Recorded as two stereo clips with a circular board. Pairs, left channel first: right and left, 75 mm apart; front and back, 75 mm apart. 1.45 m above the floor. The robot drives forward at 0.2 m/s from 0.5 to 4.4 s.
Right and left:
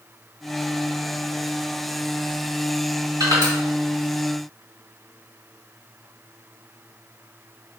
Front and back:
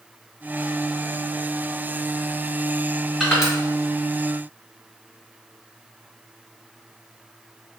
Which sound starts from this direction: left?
Crushing, at 3.2 s.